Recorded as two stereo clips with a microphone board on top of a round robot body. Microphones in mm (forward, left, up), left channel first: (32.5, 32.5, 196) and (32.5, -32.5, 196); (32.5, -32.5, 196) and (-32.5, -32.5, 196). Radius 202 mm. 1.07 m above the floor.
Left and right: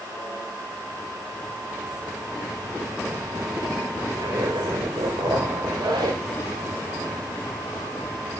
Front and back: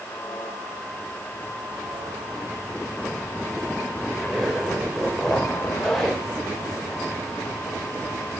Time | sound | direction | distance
4.1 | a zipper | 85° right | 5 m